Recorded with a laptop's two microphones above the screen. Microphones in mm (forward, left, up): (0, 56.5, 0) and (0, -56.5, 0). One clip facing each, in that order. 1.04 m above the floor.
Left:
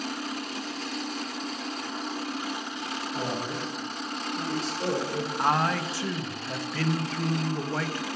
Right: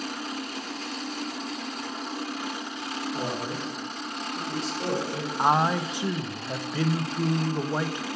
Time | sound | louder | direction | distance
3.1 | a man speaking | left 2 dB | 20° right (ahead or behind) | 3.5 m
5.4 | a man speaking | right 3 dB | 15° right (ahead or behind) | 0.7 m